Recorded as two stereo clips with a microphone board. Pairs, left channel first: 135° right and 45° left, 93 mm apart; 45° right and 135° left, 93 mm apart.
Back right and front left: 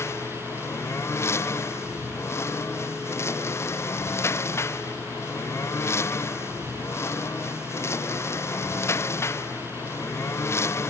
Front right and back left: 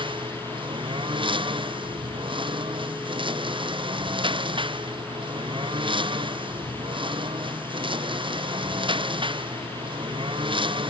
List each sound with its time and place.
0.0 s a lawn mower: 165° left